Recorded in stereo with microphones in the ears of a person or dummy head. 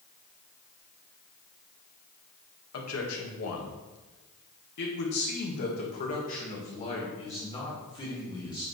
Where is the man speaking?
80° left, 2 m; by 8.6 s 20° left (ahead or behind), 3 m.